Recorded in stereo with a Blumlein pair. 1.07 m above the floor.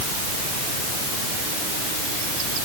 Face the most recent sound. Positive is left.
No sound to turn to.